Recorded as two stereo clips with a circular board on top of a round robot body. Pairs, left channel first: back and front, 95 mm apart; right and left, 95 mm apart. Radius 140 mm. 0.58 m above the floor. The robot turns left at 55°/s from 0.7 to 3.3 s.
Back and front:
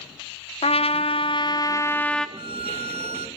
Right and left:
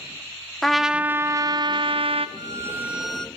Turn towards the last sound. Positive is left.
turn(degrees=-10)